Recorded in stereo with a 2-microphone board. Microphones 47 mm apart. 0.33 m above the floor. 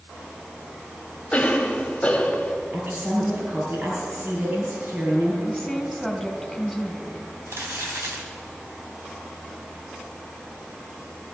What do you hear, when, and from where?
1.3 s a cough: 25° left (ahead or behind), 2 m
2.7 s a woman speaking: 40° right (ahead or behind), 5.5 m
5.4 s a woman speaking: 5° left (ahead or behind), 2.5 m
7.5 s crumpling: 55° right (ahead or behind), 3 m